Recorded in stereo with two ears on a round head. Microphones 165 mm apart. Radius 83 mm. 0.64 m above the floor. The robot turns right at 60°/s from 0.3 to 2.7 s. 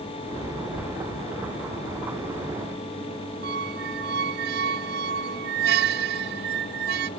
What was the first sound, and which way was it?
A squeak, 55° right (ahead or behind).